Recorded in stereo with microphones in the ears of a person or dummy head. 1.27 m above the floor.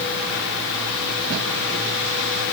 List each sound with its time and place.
Only background noise.